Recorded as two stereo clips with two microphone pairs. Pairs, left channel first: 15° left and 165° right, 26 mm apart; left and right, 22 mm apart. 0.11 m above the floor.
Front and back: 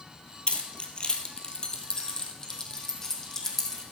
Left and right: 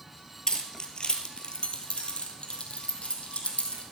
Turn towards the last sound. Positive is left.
turn(degrees=90)